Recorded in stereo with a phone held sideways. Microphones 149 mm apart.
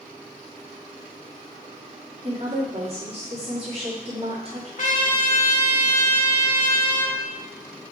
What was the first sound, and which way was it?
A woman speaking, 40° right (ahead or behind).